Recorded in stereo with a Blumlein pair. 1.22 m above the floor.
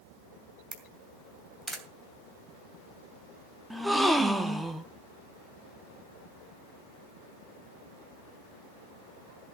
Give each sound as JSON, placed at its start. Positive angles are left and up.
{"t": 0.7, "sound": "a camera shutter", "azimuth_deg": -10, "distance_m": 2.5}
{"t": 3.7, "sound": "a gasp", "azimuth_deg": -5, "distance_m": 1.3}